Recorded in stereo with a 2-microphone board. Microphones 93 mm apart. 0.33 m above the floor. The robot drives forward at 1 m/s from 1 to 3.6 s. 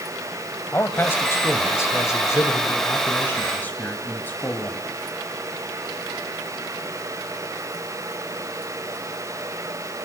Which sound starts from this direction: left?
A man speaking, at 0.7 s.